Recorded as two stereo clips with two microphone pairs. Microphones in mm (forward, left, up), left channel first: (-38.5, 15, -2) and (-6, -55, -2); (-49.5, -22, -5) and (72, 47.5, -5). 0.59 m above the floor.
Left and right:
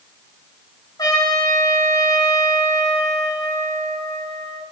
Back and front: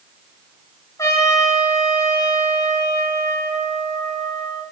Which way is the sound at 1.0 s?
145° left.